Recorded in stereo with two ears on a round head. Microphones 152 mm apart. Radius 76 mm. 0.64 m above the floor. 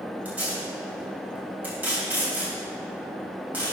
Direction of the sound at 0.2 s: 10° right (ahead or behind).